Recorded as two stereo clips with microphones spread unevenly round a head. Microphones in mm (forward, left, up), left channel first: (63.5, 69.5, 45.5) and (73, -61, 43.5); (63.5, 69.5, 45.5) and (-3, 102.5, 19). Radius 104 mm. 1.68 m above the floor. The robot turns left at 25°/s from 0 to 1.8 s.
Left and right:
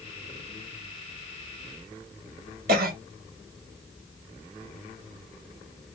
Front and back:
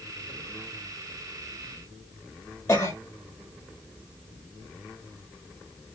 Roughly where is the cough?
Right.